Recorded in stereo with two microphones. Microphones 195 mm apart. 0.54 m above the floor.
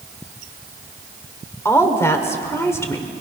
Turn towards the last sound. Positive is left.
turn(degrees=15)  # may be behind; listen again after turning